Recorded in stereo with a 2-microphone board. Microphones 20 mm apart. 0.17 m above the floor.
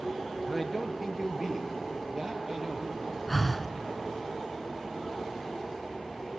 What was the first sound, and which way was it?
A man speaking, 10° right (ahead or behind).